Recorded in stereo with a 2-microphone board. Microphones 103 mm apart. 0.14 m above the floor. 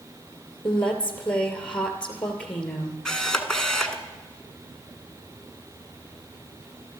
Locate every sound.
0.6 s a woman speaking: 10° left (ahead or behind), 2.5 m
3.0 s a camera shutter: 5° left (ahead or behind), 1.5 m